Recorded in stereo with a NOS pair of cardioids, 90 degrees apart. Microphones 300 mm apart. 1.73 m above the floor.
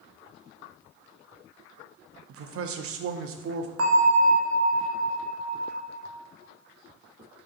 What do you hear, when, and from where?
2.3 s a man speaking: 50° right, 0.5 m
3.8 s a bell: 50° right, 0.7 m